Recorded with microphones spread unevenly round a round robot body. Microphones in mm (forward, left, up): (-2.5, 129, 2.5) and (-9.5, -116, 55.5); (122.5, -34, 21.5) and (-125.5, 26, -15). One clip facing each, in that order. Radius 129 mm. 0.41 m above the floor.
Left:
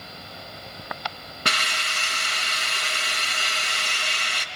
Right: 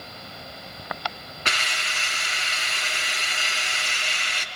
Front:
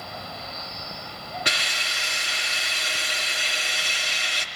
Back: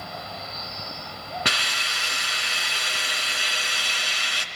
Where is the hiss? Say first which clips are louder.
Left 2 dB, back 1 dB; 135° left, 3.5 m.